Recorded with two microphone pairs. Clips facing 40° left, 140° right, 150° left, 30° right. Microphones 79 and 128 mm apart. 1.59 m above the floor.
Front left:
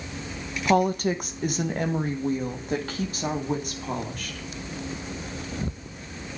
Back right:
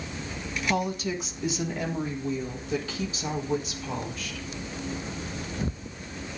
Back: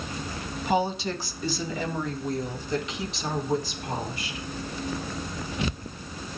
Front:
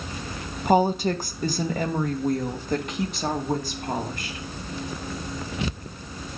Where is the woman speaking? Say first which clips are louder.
Front left 7 dB, front 6 dB; 5° left, 1.0 m.